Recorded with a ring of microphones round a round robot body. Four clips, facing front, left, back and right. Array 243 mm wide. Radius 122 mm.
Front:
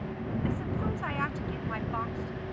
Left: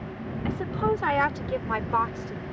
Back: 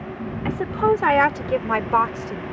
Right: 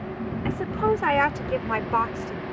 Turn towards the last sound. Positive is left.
turn(degrees=-175)